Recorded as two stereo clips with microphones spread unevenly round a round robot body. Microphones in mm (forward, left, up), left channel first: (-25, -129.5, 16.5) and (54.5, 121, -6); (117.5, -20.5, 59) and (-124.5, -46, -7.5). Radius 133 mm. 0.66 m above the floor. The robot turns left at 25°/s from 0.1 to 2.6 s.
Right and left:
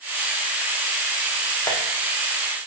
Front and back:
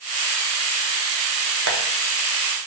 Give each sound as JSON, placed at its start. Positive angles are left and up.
{"t": 1.7, "sound": "tapping", "azimuth_deg": 175, "distance_m": 0.7}